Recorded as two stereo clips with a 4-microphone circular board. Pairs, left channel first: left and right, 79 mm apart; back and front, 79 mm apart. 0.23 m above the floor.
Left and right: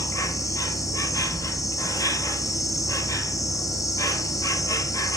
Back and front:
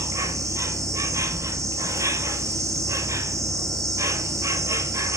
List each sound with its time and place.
0.0 s an insect: 50° left, 0.7 m